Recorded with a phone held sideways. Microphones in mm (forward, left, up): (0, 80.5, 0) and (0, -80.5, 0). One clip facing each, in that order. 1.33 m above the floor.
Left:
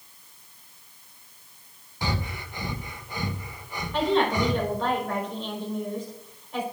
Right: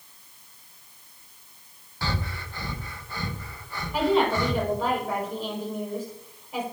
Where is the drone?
No drone in this recording.